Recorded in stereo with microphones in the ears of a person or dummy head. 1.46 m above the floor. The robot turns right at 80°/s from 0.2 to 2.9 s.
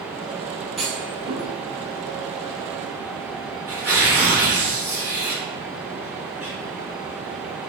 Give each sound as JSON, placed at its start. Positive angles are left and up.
{"t": 0.8, "sound": "a clunk", "side_deg": 0, "distance_m": 0.7}
{"t": 3.7, "sound": "tearing paper", "side_deg": -10, "distance_m": 1.6}